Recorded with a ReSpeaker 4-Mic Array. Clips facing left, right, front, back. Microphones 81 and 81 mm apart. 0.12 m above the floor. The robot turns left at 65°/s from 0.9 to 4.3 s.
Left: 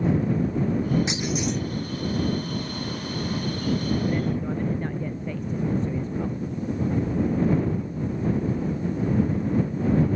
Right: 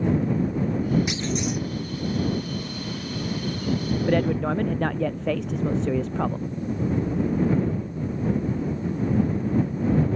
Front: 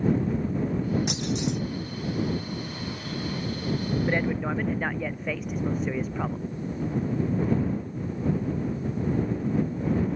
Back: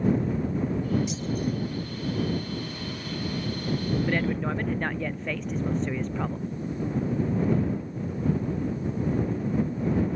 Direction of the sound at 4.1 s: 70° right.